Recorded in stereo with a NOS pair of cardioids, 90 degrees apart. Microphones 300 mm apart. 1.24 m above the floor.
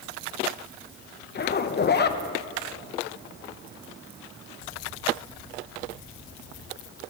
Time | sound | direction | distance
1.4 | a zipper | 35° left | 0.8 m